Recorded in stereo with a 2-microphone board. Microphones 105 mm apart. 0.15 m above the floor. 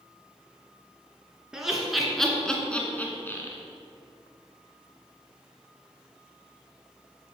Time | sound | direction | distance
1.5 | laughter | 5° right (ahead or behind) | 2 m